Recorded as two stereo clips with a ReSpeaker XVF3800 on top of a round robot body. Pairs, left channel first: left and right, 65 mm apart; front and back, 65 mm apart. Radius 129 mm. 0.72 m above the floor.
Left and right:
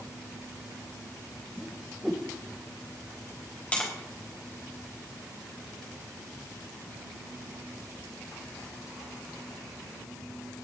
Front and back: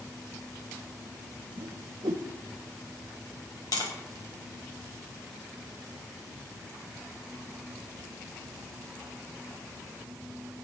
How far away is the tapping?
About 3.5 m.